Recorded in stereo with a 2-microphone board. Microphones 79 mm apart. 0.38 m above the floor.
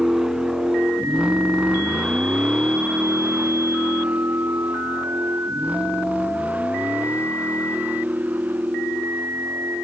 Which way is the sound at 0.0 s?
5° right (ahead or behind).